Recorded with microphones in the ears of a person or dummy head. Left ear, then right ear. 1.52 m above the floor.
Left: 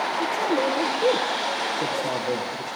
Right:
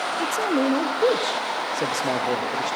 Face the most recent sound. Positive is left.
turn(degrees=-40)  # may be behind; listen again after turning